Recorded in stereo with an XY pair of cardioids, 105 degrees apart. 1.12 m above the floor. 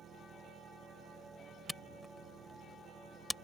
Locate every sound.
0.0 s an engine running: 55° right
1.7 s a camera shutter: 10° left